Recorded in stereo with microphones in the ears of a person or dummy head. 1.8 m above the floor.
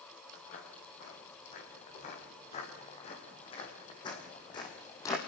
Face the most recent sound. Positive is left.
turn(degrees=20)  # may be behind; listen again after turning